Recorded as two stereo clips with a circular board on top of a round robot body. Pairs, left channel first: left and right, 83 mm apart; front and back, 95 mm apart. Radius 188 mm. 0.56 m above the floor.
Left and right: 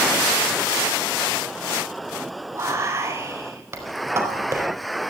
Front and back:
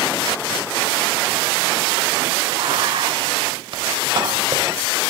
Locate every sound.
2.5 s whispering: 145° right, 4.5 m